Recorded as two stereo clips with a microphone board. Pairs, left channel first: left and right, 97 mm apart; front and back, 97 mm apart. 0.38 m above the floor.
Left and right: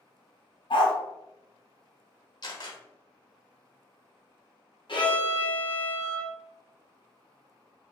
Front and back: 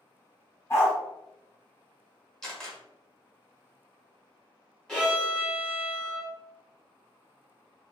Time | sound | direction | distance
0.7 | a dog barking | 60° left | 1.0 m
2.4 | a camera shutter | 80° left | 1.0 m
4.9 | a violin | 85° left | 1.2 m